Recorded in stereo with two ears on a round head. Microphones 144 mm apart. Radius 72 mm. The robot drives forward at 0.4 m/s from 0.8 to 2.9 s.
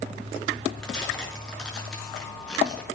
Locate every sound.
0.8 s tearing paper: 5° left (ahead or behind), 5 m